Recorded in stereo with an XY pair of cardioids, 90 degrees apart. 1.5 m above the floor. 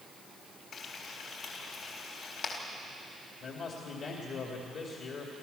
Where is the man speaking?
65° left, 2.5 m.